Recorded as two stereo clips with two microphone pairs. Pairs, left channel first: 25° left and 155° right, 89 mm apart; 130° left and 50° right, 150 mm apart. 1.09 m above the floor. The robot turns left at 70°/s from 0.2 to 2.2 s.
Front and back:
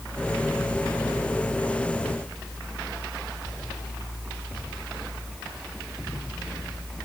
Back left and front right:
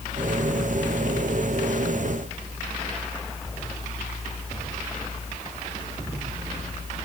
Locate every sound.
Only background noise.